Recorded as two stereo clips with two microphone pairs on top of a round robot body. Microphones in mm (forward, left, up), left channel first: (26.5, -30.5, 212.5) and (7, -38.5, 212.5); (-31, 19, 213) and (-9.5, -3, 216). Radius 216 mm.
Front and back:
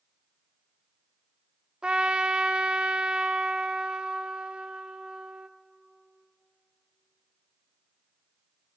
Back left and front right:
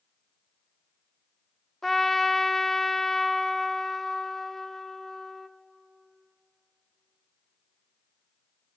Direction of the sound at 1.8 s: 150° right.